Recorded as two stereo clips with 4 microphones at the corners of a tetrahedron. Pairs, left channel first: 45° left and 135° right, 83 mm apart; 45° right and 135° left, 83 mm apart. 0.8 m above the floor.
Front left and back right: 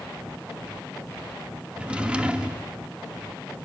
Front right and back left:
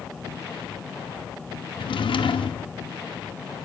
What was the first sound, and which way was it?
A drawer, 60° right.